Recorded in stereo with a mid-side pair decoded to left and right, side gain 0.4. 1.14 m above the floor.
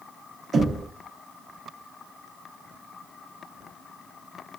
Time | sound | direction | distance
0.5 | knocking | 50° right | 0.9 m